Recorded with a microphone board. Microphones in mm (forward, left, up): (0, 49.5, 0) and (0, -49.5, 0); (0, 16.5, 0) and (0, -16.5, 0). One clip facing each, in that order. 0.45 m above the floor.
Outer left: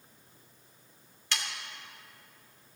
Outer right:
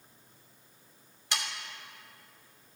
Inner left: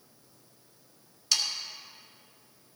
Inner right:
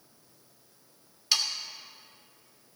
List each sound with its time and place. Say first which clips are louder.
1.3 s sawing: outer right 1 dB, inner right 1 dB; 15° right (ahead or behind), 1.3 m